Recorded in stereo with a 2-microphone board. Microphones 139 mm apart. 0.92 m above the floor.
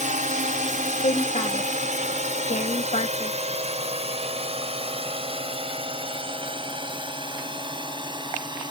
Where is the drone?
70° right (ahead or behind); by 8.7 s 35° right (ahead or behind).